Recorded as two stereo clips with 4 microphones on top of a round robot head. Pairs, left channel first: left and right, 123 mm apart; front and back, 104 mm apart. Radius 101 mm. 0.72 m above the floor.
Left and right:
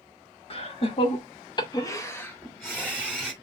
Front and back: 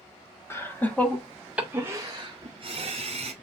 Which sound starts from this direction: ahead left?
Laughter, at 0.5 s.